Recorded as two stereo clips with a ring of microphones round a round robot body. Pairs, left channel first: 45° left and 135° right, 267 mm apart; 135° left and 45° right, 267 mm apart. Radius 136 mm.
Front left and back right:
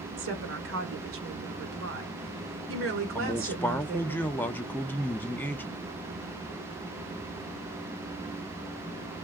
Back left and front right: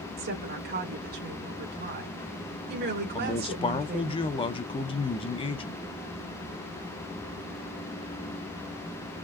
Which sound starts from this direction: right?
A woman speaking, at 0.2 s.